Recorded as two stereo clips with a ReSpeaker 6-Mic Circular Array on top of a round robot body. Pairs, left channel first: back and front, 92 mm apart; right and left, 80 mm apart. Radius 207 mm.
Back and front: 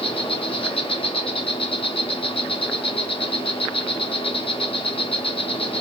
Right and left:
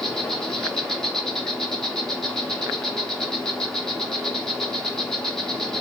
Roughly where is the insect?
Behind.